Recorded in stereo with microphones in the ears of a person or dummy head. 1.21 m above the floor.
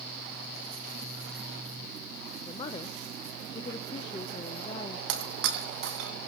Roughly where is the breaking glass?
Right.